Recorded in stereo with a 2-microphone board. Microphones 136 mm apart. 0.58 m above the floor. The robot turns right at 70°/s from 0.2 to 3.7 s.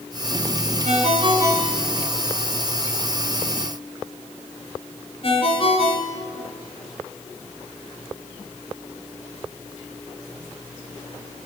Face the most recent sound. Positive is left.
turn(degrees=45)  # may be behind; listen again after turning